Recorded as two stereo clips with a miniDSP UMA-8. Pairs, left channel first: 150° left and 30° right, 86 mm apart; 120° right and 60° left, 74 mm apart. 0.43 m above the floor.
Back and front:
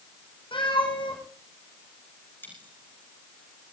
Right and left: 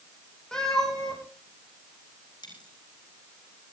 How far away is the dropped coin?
About 7.5 m.